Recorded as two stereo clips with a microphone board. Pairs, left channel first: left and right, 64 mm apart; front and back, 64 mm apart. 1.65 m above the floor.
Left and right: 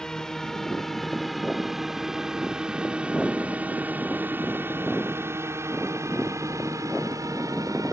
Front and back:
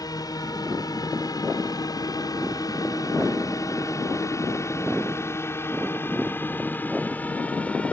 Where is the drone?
10° left; by 7.9 s 70° right.